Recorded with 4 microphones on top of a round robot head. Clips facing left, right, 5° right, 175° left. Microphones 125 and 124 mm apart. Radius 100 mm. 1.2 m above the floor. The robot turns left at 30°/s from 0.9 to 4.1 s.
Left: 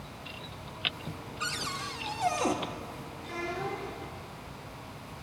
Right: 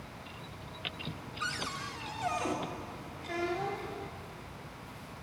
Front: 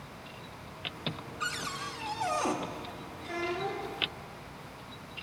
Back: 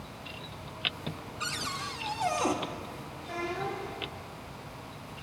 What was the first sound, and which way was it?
A cupboard door, 145° left.